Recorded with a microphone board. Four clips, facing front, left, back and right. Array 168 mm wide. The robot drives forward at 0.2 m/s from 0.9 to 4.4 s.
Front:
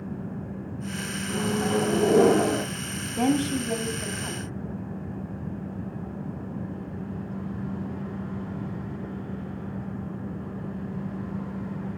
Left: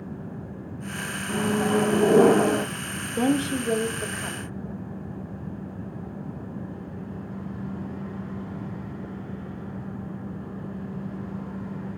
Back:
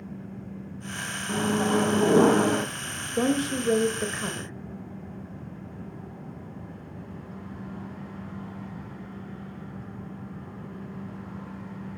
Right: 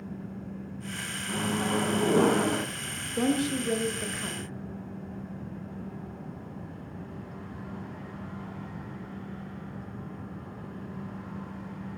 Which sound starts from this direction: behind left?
A microwave, at 1.3 s.